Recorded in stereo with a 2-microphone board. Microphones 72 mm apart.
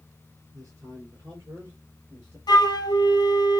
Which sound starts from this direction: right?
A man speaking, at 0.5 s.